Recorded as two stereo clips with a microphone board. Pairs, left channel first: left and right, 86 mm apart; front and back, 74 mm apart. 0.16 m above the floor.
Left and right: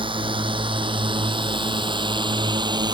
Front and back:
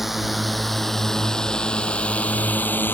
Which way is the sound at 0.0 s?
90° right.